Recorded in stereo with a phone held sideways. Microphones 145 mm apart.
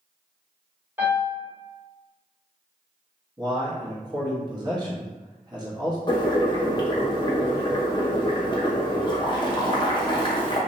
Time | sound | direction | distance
1.0 | a piano | 15° right (ahead or behind) | 1.4 m
3.4 | a man speaking | 30° right (ahead or behind) | 0.8 m
6.1 | boiling | 35° left (ahead or behind) | 0.6 m